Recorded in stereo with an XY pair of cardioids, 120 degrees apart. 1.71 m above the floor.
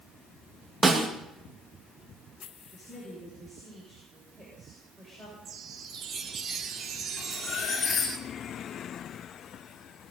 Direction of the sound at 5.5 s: 45° right.